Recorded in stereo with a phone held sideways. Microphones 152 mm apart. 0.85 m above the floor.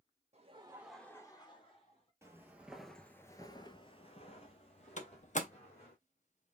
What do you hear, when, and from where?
0.3 s laughter: 50° right (ahead or behind), 0.9 m; by 2.1 s 45° left (ahead or behind), 1.9 m
2.2 s footsteps: 20° right (ahead or behind), 1.1 m; by 6.0 s 45° left (ahead or behind), 2.5 m
5.0 s a door slam: 55° left (ahead or behind), 0.7 m